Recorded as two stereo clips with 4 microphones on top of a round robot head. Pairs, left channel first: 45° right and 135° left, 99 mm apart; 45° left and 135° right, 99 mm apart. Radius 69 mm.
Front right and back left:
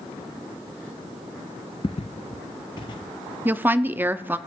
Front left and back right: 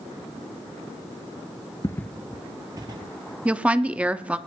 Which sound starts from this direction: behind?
A woman speaking, at 3.5 s.